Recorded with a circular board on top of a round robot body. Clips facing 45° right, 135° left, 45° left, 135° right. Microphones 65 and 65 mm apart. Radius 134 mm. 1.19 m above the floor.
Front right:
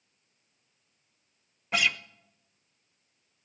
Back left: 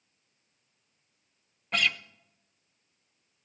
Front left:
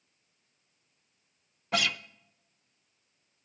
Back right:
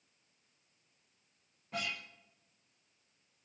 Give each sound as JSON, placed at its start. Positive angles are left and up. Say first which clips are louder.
{"t": 1.7, "sound": "a guitar", "louder": "front right 1 dB, front left 10 dB", "azimuth_deg": 40, "distance_m": 0.5}